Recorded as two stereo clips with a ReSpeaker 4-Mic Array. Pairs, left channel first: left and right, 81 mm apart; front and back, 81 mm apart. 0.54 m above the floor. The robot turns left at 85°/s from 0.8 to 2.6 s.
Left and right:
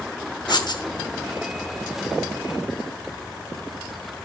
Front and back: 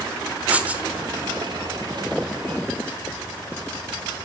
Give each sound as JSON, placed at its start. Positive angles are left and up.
{"t": 0.5, "sound": "writing", "azimuth_deg": 110, "distance_m": 1.2}